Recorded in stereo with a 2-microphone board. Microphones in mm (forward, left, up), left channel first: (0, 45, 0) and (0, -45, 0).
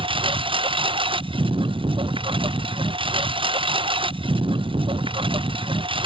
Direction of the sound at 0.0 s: 85° right.